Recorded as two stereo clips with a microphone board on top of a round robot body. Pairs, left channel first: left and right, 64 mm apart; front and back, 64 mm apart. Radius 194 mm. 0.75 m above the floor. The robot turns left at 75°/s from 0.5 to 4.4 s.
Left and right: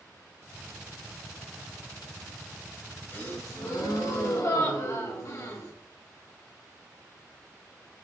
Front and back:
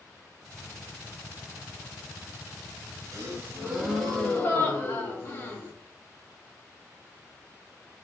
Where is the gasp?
155° left, 1.4 m; by 5.7 s 60° left, 1.4 m.